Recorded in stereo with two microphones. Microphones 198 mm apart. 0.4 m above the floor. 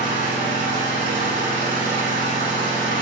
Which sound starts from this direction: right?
An engine running, at 0.0 s.